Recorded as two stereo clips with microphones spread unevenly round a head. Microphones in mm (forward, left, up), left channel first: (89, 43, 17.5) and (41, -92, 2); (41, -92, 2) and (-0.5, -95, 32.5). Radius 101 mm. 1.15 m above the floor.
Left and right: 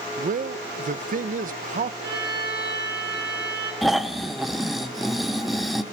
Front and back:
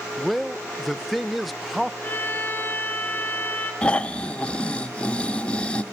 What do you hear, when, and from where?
0.2 s a man speaking: 80° right, 0.7 m
2.0 s a violin: 50° right, 9.5 m
3.8 s snoring: 145° left, 0.7 m